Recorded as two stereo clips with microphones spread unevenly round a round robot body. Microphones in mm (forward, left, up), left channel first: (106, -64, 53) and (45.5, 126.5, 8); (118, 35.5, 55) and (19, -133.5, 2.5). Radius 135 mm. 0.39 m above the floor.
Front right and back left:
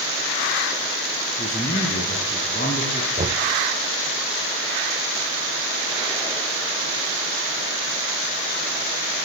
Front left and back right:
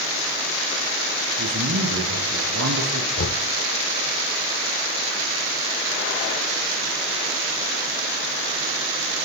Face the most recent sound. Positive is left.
turn(degrees=65)